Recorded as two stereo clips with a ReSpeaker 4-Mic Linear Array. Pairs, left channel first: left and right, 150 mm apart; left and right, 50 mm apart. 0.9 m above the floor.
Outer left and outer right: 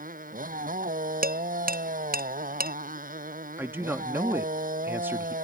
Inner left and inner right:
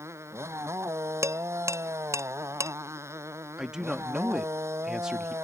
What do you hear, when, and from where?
0.0 s a motorcycle: 65° right (ahead or behind)
1.2 s dishes clattering: 80° right
3.6 s a man speaking: 15° right (ahead or behind)